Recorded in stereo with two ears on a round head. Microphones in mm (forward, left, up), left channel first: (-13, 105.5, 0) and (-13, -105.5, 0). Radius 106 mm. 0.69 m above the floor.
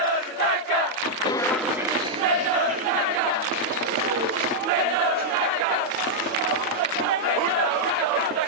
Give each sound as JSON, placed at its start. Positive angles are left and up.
{"t": 1.2, "sound": "footsteps", "side_deg": 20, "distance_m": 0.6}